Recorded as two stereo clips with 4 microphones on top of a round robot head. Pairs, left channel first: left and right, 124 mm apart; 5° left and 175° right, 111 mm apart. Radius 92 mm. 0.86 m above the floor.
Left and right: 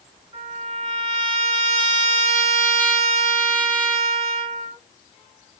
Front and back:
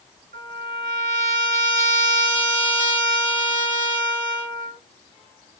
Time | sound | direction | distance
0.3 | a trumpet | 160° right | 4.5 m